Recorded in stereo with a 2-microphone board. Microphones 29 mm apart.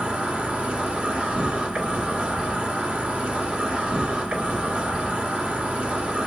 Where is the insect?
45° right (ahead or behind), 1.9 m.